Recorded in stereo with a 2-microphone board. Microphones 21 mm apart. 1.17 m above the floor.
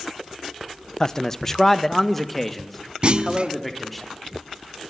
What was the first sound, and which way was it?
A man speaking, 30° left (ahead or behind).